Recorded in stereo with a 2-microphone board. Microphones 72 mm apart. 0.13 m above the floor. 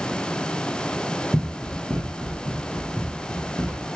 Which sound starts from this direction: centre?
Running footsteps, at 1.3 s.